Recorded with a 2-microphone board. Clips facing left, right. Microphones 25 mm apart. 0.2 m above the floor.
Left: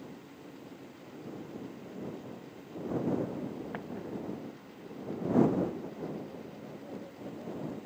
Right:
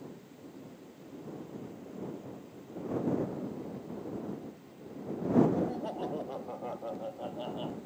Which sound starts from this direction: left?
An explosion, at 3.7 s.